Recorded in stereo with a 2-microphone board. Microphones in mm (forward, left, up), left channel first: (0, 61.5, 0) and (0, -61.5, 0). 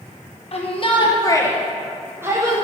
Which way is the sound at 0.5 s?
55° left (ahead or behind).